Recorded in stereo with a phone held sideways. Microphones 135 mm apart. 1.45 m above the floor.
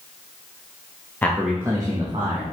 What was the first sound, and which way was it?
A man speaking, 15° left (ahead or behind).